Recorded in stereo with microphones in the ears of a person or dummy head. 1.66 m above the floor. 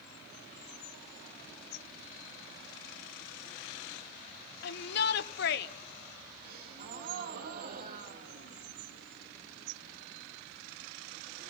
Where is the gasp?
50° right (ahead or behind), 2.5 m.